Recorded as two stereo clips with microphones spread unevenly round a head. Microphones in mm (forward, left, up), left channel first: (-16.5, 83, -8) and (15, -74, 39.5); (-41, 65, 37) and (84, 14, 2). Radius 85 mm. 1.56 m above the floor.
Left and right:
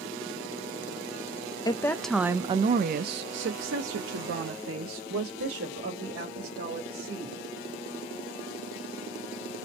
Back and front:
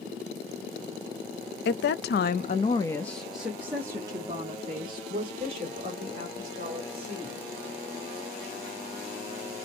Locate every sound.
1.6 s a woman speaking: 165° left, 0.6 m; by 7.4 s 75° right, 2.5 m